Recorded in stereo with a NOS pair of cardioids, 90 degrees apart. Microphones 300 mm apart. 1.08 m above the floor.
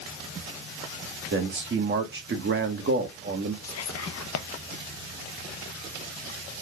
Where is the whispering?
55° left, 0.7 m.